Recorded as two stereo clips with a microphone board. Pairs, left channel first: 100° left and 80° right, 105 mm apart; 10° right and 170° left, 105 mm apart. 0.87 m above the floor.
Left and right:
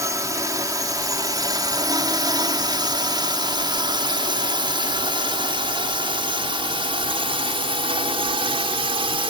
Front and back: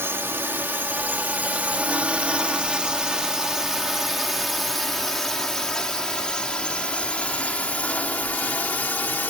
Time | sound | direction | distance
0.0 | a drone | 130° right | ?